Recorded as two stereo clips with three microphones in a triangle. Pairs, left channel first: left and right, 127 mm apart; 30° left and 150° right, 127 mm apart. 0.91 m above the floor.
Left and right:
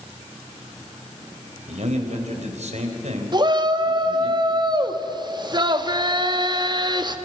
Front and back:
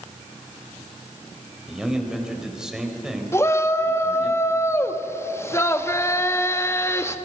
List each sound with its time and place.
1.7 s a man speaking: 65° right, 4 m
3.3 s a shout: 40° right, 1.3 m